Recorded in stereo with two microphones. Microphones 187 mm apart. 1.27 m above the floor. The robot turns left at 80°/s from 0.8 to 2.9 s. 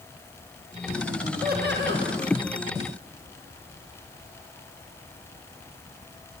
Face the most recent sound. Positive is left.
turn(degrees=-165)